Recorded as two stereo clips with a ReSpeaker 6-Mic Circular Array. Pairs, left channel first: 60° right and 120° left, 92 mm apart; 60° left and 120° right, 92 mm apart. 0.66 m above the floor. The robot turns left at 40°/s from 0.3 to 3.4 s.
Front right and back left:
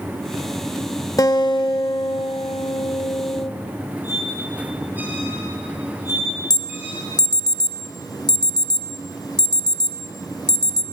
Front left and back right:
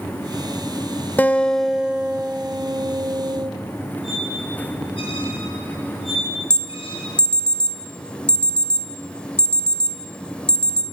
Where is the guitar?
10° right, 0.9 m; by 3.5 s 100° right, 0.9 m.